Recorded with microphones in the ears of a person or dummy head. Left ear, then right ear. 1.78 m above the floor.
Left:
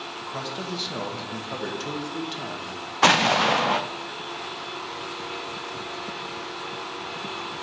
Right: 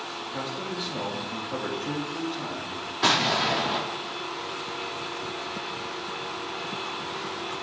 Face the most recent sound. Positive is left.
turn(degrees=35)  # may be behind; listen again after turning